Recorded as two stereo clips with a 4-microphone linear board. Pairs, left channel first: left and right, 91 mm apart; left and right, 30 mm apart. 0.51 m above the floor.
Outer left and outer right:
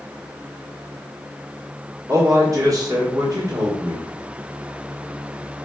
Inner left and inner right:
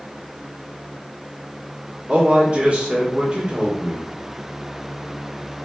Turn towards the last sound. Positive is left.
turn(degrees=-40)  # may be behind; listen again after turning